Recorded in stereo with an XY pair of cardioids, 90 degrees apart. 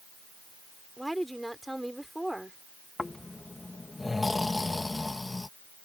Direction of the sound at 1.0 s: 5° right.